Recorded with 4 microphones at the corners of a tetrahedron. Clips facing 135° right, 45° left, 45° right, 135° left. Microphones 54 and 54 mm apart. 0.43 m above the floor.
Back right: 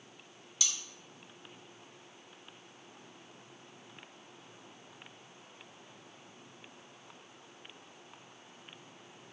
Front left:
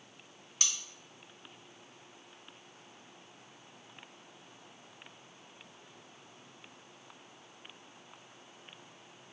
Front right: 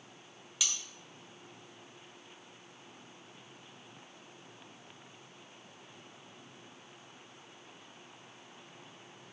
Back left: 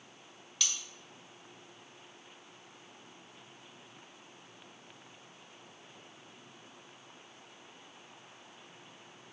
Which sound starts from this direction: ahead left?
Cutlery clinking, at 0.6 s.